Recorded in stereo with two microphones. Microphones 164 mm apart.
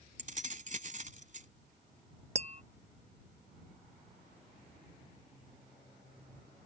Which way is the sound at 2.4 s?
40° right (ahead or behind).